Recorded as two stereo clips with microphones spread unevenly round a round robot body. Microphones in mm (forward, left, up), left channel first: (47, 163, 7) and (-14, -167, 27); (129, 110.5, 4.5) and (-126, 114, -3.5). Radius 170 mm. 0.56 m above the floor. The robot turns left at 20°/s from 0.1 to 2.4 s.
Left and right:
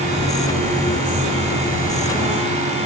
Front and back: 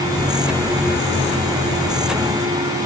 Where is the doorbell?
No doorbell in this recording.